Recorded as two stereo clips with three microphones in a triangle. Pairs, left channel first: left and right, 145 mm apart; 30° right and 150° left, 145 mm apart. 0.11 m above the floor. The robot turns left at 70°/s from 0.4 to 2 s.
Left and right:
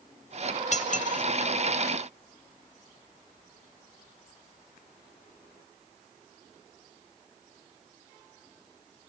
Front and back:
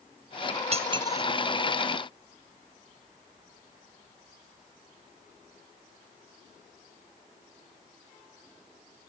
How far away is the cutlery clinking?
About 1.3 m.